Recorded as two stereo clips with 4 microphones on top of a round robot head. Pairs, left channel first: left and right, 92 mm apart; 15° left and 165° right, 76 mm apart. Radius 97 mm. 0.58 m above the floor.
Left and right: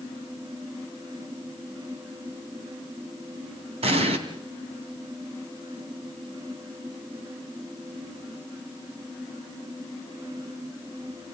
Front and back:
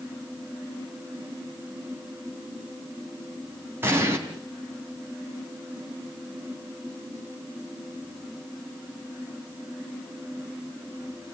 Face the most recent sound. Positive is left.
turn(degrees=-100)